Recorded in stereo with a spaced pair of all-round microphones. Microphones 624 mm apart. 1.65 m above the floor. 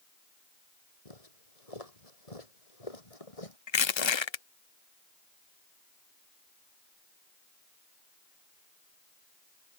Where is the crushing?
45° left (ahead or behind).